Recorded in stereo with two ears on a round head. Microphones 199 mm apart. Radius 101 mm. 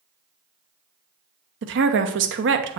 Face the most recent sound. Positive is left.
turn(degrees=-60)  # may be behind; listen again after turning